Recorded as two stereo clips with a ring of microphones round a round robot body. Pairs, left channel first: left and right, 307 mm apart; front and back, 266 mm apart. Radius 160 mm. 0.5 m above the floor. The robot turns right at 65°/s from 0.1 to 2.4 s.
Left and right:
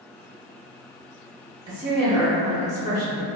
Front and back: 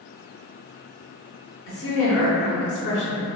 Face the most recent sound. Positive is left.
turn(degrees=25)